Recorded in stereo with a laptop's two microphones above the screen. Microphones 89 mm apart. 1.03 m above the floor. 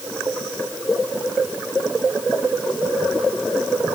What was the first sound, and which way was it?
Only background noise.